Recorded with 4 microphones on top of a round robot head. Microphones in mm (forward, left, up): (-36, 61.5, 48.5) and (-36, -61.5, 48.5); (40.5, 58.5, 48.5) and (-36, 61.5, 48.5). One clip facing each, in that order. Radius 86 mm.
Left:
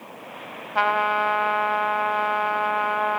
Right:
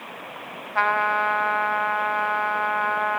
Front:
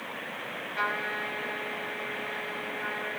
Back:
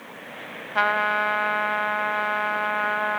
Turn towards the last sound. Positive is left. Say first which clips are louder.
# left 1 dB, back 10 dB
turn(degrees=165)